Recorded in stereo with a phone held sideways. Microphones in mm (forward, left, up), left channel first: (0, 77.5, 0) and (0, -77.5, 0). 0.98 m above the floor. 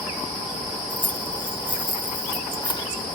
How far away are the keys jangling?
About 2.5 m.